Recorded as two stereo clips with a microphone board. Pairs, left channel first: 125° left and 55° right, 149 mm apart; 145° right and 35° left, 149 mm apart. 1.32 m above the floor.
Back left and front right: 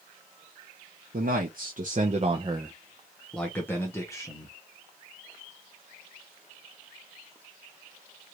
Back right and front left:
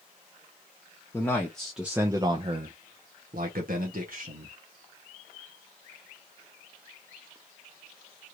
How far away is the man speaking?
About 0.9 m.